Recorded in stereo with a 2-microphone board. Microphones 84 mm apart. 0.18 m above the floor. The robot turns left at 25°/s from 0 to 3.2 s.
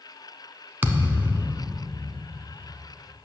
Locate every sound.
0.8 s a thud: 25° right (ahead or behind), 0.7 m; by 1.9 s centre (ahead or behind), 0.7 m